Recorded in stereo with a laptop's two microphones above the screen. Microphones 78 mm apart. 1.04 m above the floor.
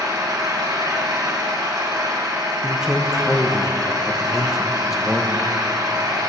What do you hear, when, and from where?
0.0 s an engine running: 55° right (ahead or behind), 3 m
2.6 s a man speaking: 5° right (ahead or behind), 0.8 m